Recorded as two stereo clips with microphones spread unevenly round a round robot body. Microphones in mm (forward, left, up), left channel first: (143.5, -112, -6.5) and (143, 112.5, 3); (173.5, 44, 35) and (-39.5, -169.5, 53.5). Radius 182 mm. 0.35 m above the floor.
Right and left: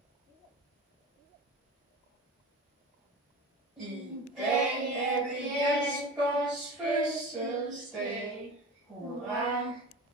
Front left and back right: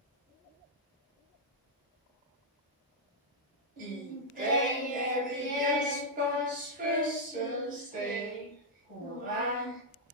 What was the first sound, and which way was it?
Singing, 175° right.